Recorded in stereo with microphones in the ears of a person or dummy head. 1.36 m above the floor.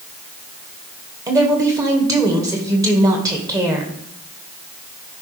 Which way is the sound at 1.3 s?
20° right (ahead or behind).